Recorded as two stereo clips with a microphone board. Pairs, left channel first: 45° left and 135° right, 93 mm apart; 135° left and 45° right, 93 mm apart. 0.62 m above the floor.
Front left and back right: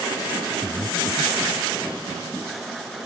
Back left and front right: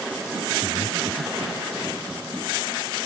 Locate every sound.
0.6 s breathing: 60° right